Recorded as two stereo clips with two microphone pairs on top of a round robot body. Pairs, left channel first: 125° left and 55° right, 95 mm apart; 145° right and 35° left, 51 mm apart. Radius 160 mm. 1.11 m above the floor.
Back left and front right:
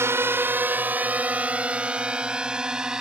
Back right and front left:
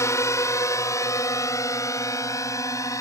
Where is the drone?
115° right; by 3.0 s 135° right.